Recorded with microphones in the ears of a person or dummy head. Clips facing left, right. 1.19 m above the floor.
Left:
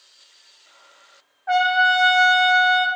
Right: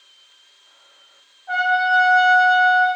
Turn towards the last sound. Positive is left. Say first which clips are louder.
# left 1 dB
turn(degrees=80)